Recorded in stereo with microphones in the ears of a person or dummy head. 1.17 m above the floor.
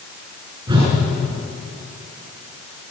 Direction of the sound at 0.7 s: 35° right (ahead or behind).